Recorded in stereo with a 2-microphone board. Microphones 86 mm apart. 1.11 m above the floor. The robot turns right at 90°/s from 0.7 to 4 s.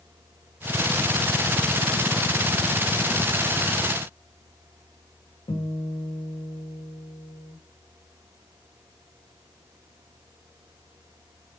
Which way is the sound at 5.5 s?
70° left (ahead or behind).